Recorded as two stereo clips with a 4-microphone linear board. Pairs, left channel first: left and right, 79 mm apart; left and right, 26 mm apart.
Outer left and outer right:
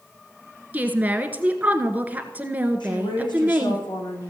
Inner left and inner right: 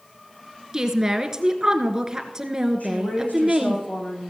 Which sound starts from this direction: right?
A woman speaking, at 0.7 s.